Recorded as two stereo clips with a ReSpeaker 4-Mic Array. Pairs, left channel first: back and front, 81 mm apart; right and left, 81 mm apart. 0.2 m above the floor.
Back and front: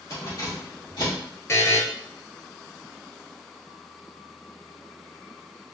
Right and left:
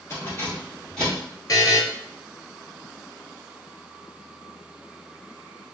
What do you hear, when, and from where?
0.1 s keys jangling: 140° right, 2.0 m; by 1.2 s 170° right, 2.5 m
1.5 s a buzzer: 130° right, 0.6 m